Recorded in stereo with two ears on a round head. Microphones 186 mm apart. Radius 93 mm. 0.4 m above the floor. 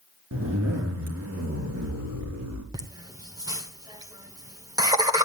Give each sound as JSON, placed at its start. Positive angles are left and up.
{"t": 0.3, "sound": "a zipper", "side_deg": -80, "distance_m": 3.5}
{"t": 2.7, "sound": "laughter", "side_deg": -20, "distance_m": 1.2}